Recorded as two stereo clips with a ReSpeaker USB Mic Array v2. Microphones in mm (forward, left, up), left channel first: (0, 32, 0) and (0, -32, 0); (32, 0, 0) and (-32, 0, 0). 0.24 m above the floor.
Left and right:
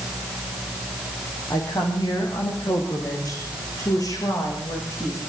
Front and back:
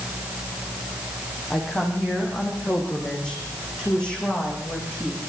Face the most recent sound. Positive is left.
turn(degrees=70)